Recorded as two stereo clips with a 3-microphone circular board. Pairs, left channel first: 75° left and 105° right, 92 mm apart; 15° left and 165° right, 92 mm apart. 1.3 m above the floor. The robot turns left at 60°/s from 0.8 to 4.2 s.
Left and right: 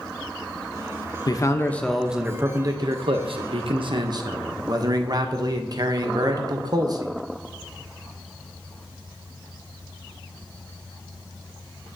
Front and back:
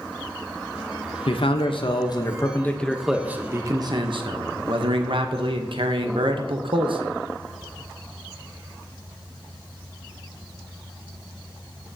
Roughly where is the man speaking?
Ahead left.